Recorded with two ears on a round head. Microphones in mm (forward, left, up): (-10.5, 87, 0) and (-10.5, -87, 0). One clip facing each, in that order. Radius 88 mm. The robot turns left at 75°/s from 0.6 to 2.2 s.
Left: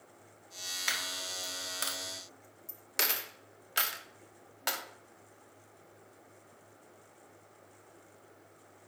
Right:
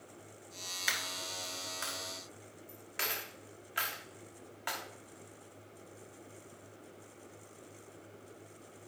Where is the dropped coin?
5° right (ahead or behind), 1.3 m; by 4.8 s 50° left (ahead or behind), 1.3 m.